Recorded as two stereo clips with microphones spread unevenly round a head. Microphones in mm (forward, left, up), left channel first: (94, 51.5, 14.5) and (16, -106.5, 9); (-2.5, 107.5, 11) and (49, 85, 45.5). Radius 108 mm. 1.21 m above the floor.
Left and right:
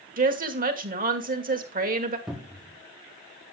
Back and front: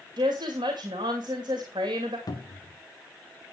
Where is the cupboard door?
155° left, 1.5 m.